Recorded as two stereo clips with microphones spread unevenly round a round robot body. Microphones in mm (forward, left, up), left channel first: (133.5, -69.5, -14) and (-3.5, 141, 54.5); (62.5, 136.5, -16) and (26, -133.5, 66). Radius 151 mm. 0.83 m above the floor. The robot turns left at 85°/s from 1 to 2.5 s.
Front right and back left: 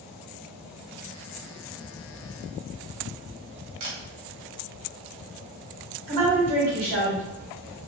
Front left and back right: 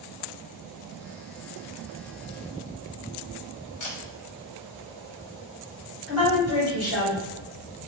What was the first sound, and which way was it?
A camera shutter, 100° left.